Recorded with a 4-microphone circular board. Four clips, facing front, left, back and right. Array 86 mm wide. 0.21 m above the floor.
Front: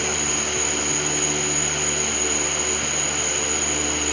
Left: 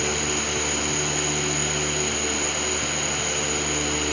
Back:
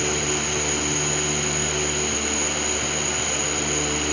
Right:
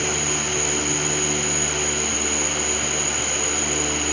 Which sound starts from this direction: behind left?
An insect, at 0.0 s.